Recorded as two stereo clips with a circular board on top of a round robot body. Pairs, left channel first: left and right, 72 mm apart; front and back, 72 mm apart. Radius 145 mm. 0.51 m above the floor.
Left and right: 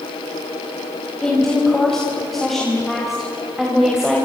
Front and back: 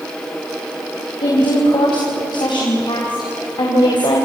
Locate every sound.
1.2 s a woman speaking: 10° left, 5 m; by 4.2 s 10° right, 4 m